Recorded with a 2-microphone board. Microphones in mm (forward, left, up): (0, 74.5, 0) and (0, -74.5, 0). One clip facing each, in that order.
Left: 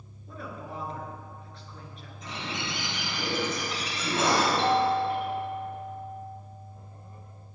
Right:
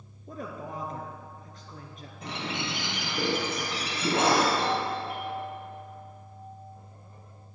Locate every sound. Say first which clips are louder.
0.3 s a woman speaking: right 2 dB; 45° right (ahead or behind), 2 m
2.2 s a bird: right 2 dB; 65° right (ahead or behind), 3 m
4.6 s a doorbell: left 5 dB; 30° left (ahead or behind), 2.5 m